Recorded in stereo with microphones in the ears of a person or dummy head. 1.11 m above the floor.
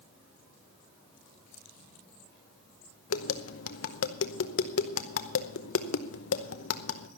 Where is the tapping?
65° left (ahead or behind), 0.8 m.